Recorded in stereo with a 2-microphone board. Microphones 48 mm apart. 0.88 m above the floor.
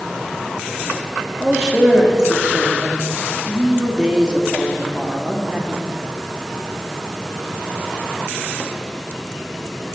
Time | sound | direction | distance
1.4 | a man speaking | 20° right (ahead or behind) | 1.9 m